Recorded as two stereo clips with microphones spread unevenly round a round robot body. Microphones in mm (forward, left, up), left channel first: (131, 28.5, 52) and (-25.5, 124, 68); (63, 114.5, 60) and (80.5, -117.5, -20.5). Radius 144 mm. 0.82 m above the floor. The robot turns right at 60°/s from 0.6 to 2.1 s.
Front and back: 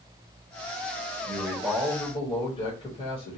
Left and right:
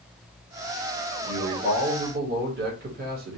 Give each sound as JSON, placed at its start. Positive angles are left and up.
{"t": 1.3, "sound": "a man speaking", "azimuth_deg": -135, "distance_m": 0.9}